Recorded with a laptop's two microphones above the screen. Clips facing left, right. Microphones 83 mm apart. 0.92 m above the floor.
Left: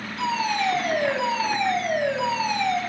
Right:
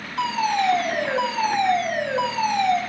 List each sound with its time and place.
0.2 s a fire alarm: 70° right (ahead or behind), 4.5 m